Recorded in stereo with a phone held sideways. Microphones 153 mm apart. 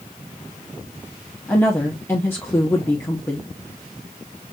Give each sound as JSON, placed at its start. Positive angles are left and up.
{"t": 1.5, "sound": "a woman speaking", "side_deg": 15, "distance_m": 0.9}